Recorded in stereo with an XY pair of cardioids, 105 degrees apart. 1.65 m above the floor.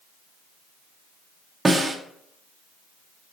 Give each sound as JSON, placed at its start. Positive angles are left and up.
{"t": 1.6, "sound": "a snare drum", "azimuth_deg": -20, "distance_m": 0.6}